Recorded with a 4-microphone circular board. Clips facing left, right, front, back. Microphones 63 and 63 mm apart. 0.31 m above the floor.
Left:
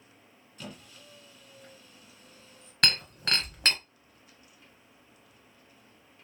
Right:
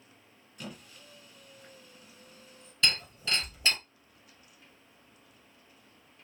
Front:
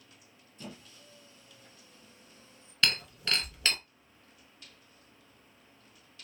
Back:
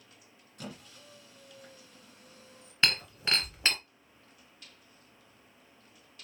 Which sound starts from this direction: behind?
A squeak, at 0.6 s.